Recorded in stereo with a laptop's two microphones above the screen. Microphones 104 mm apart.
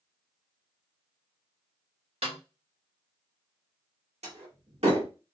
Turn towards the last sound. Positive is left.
turn(degrees=-85)